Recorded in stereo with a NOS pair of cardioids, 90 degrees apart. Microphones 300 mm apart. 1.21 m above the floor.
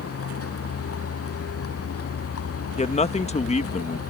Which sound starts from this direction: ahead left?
A vehicle, at 0.0 s.